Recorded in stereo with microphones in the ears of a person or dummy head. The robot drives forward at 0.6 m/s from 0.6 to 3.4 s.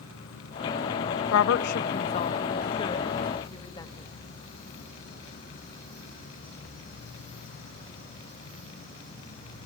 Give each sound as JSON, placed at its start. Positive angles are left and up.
{"t": 0.0, "sound": "an insect", "side_deg": 70, "distance_m": 3.5}
{"t": 1.3, "sound": "a woman speaking", "side_deg": 70, "distance_m": 0.5}